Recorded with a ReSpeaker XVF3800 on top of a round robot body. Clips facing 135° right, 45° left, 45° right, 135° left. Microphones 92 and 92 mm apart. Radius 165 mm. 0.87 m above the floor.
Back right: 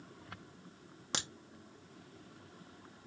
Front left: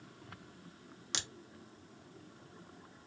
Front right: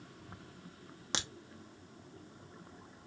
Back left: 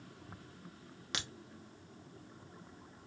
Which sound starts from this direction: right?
A crack, at 1.1 s.